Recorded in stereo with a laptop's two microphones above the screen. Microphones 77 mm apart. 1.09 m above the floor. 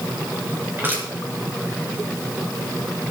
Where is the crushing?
30° right (ahead or behind), 4 m.